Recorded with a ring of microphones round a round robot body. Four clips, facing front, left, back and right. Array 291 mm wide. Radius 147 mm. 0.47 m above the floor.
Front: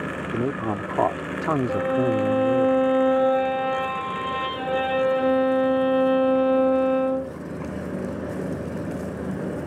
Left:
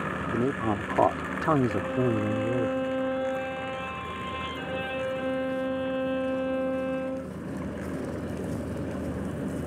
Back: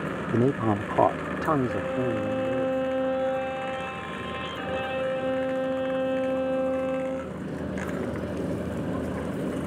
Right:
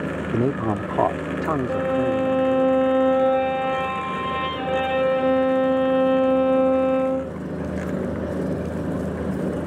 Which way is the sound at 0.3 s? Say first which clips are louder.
Right 5 dB, back 3 dB; 120° right.